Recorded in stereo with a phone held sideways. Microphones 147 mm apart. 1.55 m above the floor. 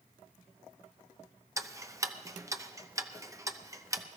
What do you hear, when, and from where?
1.6 s ticking: 20° right (ahead or behind), 0.6 m